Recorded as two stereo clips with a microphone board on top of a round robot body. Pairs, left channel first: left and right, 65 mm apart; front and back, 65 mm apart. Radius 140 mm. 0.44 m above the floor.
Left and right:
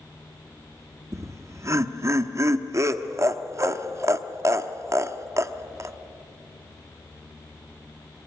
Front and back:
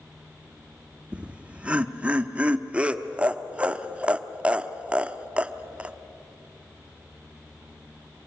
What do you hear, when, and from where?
1.1 s laughter: 115° right, 1.1 m